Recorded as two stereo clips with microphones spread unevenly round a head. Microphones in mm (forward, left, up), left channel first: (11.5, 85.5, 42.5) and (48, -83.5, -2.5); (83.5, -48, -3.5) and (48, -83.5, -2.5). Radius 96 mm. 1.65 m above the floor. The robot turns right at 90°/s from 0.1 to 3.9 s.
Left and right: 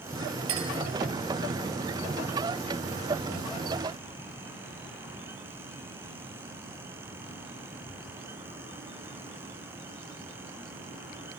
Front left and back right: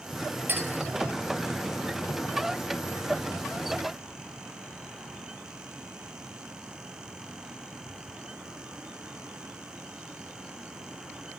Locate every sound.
0.5 s a clink: 90° right, 8 m; by 0.7 s 75° right, 8 m